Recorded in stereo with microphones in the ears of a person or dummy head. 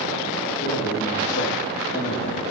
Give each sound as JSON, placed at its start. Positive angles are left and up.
{"t": 0.6, "sound": "a man speaking", "side_deg": 35, "distance_m": 2.5}